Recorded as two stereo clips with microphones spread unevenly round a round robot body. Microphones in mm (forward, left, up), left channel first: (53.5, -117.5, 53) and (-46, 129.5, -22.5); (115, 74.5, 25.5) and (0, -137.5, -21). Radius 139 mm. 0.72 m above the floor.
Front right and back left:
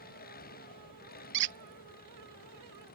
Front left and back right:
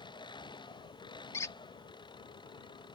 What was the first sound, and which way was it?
An engine running, 10° right.